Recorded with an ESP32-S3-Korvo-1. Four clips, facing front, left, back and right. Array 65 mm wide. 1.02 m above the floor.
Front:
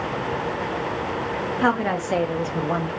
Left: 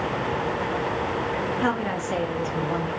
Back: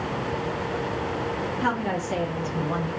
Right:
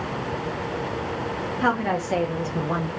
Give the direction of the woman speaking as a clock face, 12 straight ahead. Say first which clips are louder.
Right 2 dB, front 6 dB; 1 o'clock.